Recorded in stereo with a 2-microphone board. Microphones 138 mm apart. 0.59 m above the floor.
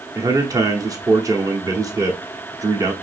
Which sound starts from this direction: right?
A man speaking, at 0.1 s.